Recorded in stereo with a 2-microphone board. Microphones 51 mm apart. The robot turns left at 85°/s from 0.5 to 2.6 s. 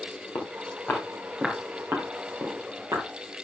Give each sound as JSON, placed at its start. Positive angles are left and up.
{"t": 0.3, "sound": "footsteps", "side_deg": 60, "distance_m": 5.0}